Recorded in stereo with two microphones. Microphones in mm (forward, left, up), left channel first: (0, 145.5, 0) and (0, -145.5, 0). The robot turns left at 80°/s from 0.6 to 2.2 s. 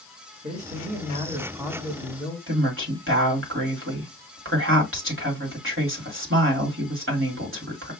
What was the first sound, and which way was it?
A man speaking, 25° right (ahead or behind).